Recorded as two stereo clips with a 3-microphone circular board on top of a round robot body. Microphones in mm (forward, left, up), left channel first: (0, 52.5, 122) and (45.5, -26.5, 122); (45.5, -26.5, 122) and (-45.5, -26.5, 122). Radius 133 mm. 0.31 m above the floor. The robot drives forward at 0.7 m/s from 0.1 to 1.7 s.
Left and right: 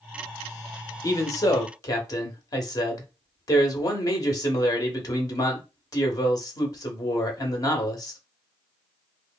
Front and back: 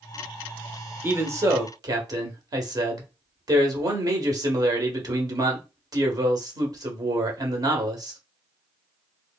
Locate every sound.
1.0 s a man speaking: 135° left, 1.2 m; by 8.2 s 155° left, 1.5 m